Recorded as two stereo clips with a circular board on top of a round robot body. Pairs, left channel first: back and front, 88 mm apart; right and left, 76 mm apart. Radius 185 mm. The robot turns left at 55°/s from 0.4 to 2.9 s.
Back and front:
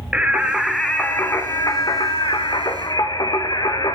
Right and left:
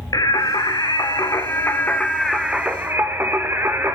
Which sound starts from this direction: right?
Singing, at 0.1 s.